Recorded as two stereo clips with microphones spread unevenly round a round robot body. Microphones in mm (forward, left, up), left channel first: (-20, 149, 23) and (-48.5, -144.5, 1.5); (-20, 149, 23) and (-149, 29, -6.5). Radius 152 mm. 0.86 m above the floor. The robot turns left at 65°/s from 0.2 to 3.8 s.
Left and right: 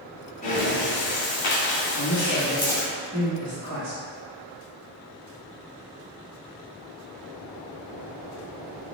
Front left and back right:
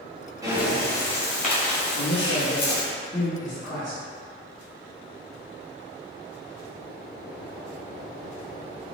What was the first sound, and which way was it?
Breathing, 150° left.